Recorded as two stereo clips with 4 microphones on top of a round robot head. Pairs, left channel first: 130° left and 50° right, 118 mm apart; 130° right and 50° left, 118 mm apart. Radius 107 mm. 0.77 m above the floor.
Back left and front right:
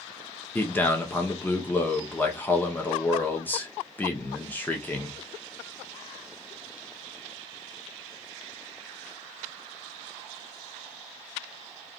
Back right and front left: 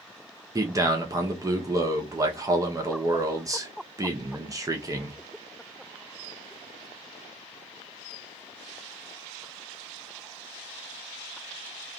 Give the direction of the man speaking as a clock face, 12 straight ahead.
10 o'clock.